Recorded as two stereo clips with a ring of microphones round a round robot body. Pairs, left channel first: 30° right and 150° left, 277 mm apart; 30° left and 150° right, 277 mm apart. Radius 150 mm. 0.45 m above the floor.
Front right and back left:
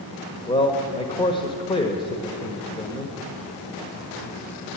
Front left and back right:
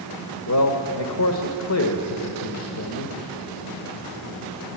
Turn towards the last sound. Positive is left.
turn(degrees=40)